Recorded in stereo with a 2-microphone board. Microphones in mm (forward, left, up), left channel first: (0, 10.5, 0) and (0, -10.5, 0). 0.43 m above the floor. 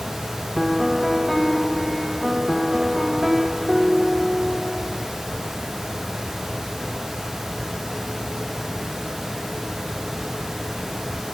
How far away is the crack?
No crack in this recording.